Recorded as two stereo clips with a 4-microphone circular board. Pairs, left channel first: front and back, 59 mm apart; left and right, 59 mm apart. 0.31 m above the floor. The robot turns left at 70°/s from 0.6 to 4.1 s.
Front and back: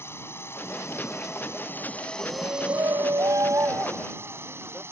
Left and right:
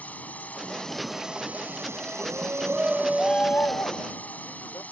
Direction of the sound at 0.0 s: 35° left.